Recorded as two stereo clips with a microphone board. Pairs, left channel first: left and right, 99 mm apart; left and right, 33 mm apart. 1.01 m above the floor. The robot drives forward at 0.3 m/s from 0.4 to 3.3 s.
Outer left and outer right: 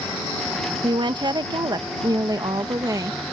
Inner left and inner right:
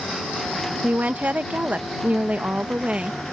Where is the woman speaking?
50° right (ahead or behind); by 3.2 s 35° right (ahead or behind).